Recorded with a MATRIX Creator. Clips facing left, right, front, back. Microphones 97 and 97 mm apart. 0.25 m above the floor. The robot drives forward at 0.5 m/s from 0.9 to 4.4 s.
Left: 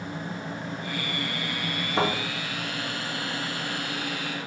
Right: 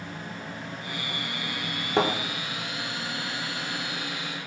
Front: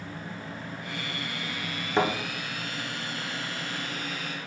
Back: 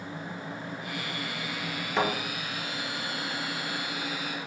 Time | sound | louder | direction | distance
2.0 | a thud | right 2 dB, front 2 dB | 65° right | 1.6 m